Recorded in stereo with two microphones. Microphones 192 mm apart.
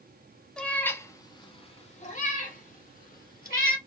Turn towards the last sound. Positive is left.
turn(degrees=50)  # may be behind; listen again after turning